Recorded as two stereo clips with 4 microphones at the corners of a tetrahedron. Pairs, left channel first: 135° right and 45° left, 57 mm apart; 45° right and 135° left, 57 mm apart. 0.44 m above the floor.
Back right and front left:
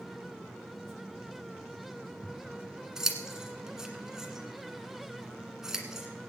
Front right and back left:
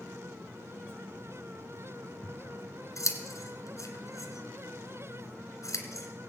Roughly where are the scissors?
Ahead right.